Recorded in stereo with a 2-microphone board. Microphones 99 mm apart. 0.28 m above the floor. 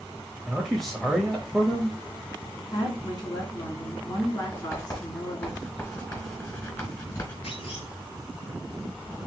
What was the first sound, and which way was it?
A man speaking, 5° left (ahead or behind).